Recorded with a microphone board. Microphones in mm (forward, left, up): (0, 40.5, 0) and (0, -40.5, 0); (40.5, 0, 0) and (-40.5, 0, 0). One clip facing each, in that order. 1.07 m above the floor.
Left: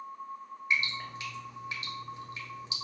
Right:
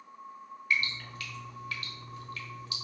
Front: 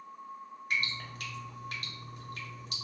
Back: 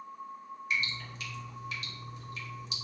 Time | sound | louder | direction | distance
0.7 | dripping | even, even | 25° left | 0.7 m